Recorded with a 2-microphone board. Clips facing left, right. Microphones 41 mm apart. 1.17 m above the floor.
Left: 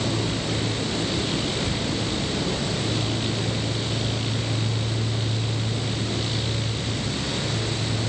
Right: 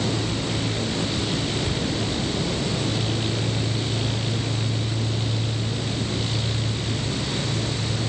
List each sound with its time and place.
Only background noise.